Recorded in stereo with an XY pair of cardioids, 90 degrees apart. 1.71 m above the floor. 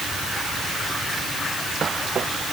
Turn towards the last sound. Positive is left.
No sound to turn to.